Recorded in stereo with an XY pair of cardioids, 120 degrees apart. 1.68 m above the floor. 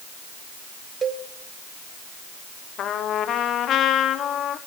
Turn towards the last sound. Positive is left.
turn(degrees=60)